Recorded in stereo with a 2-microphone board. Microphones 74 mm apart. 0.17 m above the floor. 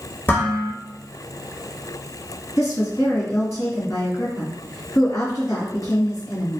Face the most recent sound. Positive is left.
turn(degrees=50)  # may be behind; listen again after turning